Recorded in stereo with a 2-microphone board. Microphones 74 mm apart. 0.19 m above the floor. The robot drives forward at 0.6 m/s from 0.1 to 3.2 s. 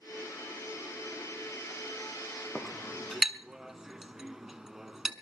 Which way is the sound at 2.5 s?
10° right (ahead or behind).